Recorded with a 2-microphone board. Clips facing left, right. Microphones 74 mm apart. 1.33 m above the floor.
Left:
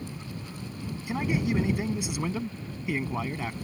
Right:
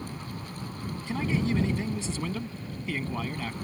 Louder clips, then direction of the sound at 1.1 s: Even; 15° left (ahead or behind).